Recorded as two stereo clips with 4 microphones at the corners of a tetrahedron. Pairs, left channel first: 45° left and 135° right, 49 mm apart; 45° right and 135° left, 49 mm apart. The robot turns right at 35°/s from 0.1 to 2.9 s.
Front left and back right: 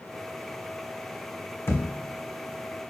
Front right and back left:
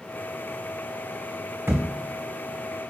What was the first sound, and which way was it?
A thud, 85° left.